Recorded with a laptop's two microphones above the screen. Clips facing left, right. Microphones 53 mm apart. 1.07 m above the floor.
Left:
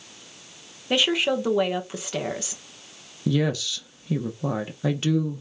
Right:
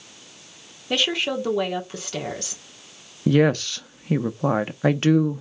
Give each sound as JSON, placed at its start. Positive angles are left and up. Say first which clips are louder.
{"t": 0.9, "sound": "a woman speaking", "louder": "left 2 dB", "side_deg": 10, "distance_m": 0.9}
{"t": 3.3, "sound": "a woman speaking", "louder": "right 6 dB", "side_deg": -50, "distance_m": 0.7}